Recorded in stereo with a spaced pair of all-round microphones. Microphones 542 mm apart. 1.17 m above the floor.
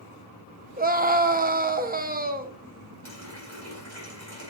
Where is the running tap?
30° left (ahead or behind), 4.5 m.